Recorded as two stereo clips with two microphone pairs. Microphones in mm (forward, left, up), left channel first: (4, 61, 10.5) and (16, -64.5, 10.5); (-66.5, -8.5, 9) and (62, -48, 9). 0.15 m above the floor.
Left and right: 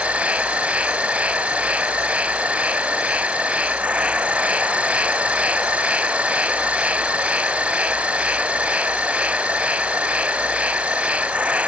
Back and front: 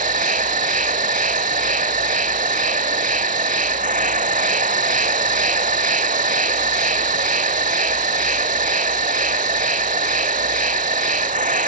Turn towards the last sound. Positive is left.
turn(degrees=-5)